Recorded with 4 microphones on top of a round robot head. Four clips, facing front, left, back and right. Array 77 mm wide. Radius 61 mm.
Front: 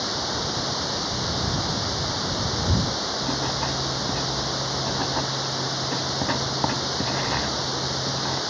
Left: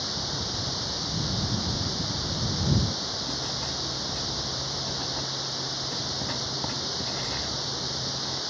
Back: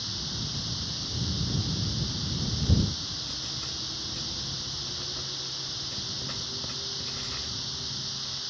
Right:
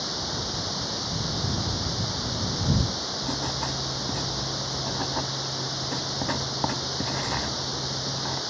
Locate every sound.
0.0 s running water: 5° right
3.2 s writing: 25° right